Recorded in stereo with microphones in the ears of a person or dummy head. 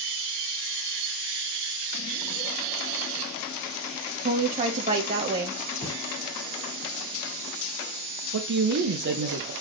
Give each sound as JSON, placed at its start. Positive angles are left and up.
{"t": 4.2, "sound": "a woman speaking", "side_deg": -40, "distance_m": 1.5}
{"t": 5.8, "sound": "a thud", "side_deg": 20, "distance_m": 2.5}
{"t": 8.3, "sound": "a man speaking", "side_deg": -55, "distance_m": 1.0}